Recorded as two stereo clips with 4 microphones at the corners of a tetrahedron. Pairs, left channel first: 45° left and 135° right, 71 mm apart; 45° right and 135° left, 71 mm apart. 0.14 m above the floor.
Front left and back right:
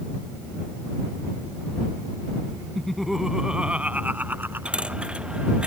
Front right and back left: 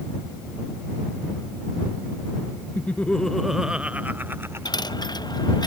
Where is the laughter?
30° right; by 5.1 s 175° left.